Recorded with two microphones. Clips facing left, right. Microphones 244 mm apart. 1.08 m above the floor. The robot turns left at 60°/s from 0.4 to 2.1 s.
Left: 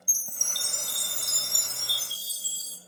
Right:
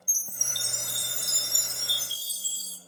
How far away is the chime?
About 0.5 m.